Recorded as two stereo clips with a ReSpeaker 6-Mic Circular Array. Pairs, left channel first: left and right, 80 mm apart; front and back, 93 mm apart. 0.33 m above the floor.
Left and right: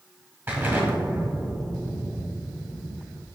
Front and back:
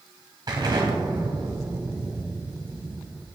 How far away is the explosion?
About 1.7 m.